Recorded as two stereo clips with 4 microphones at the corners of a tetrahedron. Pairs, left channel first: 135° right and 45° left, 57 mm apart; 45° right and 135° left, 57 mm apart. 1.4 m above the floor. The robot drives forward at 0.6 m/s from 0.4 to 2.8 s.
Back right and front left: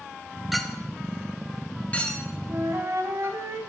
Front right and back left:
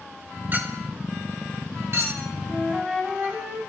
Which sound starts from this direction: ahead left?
A flute, at 2.5 s.